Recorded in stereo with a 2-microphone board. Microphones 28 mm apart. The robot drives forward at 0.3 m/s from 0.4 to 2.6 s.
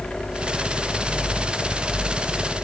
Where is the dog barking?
I don't hear a dog barking.